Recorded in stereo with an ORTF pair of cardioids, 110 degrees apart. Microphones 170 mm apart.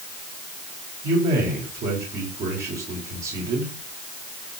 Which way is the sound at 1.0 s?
55° right.